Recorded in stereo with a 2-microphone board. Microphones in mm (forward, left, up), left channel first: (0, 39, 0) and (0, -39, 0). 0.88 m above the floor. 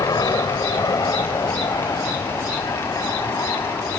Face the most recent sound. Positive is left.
turn(degrees=45)  # may be behind; listen again after turning